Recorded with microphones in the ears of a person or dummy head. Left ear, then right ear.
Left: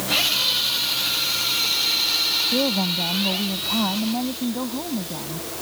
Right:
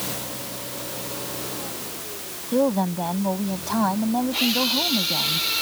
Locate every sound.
2.5 s a woman speaking: 85° right